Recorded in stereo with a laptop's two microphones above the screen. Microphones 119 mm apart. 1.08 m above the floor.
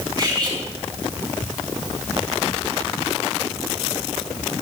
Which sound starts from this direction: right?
Cutlery clinking, at 0.2 s.